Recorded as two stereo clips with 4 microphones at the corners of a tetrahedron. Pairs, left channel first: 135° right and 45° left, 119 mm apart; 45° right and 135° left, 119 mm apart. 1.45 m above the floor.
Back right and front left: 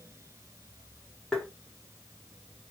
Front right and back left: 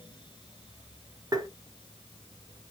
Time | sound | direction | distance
1.3 | tapping | 145° left | 0.8 m